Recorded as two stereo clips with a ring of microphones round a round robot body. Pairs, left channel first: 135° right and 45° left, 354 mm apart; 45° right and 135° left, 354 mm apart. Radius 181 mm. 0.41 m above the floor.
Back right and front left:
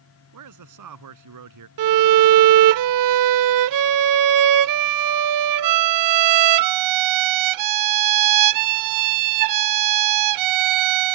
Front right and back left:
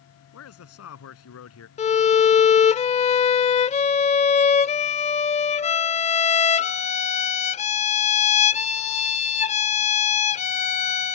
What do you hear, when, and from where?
0.3 s a man speaking: 5° left
1.8 s a violin: 25° left